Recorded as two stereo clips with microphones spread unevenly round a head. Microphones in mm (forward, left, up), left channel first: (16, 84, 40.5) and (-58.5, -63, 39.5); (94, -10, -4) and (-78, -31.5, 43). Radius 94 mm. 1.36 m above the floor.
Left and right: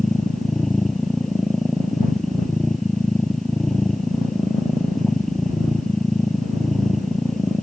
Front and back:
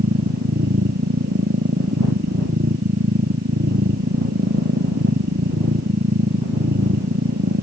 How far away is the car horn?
I don't hear a car horn.